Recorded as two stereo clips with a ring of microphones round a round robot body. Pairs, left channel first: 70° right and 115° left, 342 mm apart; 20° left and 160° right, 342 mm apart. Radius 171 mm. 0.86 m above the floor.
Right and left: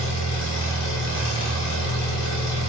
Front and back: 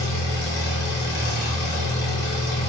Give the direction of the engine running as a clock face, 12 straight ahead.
1 o'clock.